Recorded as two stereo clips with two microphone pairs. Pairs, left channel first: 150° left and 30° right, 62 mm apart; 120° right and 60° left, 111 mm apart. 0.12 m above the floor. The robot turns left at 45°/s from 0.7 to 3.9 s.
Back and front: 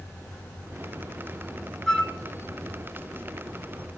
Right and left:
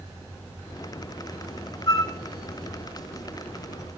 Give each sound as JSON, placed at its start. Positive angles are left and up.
{"t": 1.9, "sound": "a flute", "azimuth_deg": -130, "distance_m": 0.8}